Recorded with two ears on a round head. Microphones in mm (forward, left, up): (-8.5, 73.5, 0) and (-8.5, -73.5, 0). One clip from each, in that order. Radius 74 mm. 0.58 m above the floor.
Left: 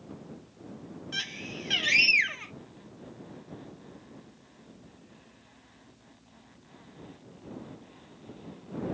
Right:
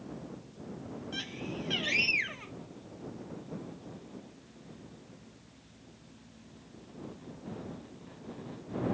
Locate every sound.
1.1 s a scream: 55° left (ahead or behind)